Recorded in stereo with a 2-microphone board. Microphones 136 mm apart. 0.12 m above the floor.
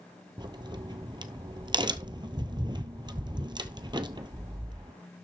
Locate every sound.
0.4 s a crack: 35° right (ahead or behind), 0.8 m